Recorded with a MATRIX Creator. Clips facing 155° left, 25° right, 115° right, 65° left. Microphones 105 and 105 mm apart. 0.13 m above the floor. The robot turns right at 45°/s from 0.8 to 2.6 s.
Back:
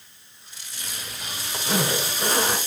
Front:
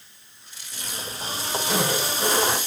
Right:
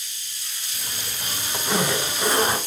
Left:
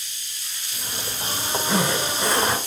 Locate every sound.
1.7 s a zipper: 140° left, 1.5 m; by 2.6 s straight behind, 1.5 m